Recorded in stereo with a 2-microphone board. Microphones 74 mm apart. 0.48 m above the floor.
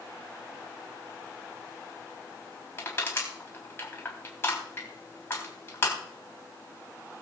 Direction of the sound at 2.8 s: 30° left (ahead or behind).